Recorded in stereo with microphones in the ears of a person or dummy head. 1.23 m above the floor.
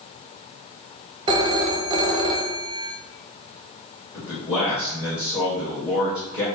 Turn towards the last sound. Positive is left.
turn(degrees=10)  # may be behind; listen again after turning